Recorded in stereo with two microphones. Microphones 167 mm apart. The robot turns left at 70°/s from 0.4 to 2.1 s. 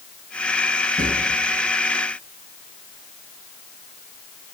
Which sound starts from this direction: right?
A drawer, at 1.0 s.